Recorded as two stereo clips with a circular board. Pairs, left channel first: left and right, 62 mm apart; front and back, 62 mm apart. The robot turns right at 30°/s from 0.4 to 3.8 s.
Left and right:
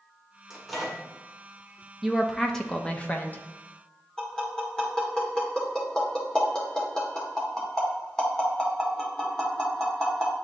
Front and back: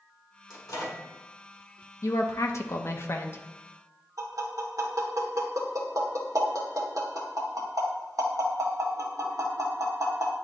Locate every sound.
0.5 s a microwave: 5° right, 1.8 m; by 1.0 s 10° left, 1.8 m
2.0 s a woman speaking: 5° right, 0.7 m; by 3.4 s 40° left, 0.7 m
4.2 s tapping: 170° left, 1.7 m